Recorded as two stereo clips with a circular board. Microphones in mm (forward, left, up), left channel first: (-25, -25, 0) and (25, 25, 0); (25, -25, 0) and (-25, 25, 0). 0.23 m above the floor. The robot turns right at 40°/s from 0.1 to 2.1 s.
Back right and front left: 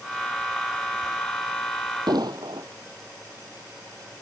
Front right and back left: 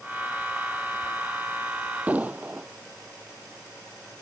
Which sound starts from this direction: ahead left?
An explosion, at 2.1 s.